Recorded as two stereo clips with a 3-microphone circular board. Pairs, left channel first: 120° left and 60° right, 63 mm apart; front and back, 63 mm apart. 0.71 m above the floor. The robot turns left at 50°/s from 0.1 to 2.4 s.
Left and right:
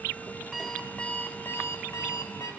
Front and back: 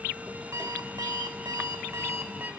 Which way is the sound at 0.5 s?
145° right.